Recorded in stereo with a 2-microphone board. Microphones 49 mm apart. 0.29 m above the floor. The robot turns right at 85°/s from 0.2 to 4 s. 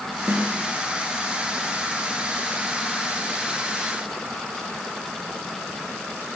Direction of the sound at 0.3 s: 70° right (ahead or behind).